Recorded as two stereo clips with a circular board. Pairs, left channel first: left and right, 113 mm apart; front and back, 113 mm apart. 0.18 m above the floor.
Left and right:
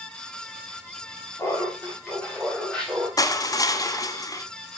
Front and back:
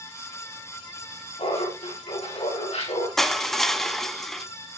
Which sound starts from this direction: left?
Crushing, at 3.2 s.